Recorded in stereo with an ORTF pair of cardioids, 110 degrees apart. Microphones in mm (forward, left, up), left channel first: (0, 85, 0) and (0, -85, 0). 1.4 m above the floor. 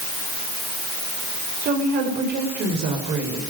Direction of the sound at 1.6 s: 70° right.